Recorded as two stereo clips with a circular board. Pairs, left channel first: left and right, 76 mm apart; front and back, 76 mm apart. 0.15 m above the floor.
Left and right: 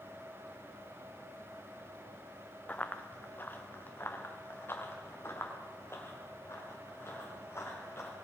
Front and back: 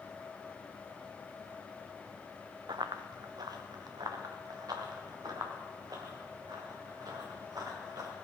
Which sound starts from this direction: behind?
Running footsteps, at 2.7 s.